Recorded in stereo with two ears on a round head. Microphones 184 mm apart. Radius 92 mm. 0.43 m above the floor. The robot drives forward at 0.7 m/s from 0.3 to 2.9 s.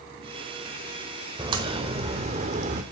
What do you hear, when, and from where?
1.4 s a crack: 25° right (ahead or behind), 1.2 m; by 2.8 s 35° right (ahead or behind), 0.8 m